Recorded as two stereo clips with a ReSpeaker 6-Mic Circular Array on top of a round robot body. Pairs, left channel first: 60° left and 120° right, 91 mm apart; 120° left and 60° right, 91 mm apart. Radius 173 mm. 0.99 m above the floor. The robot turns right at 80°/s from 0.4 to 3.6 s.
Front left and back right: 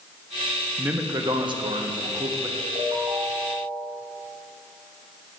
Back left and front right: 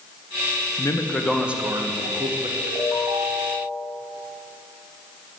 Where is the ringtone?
140° right, 3 m; by 3.9 s 60° right, 3 m.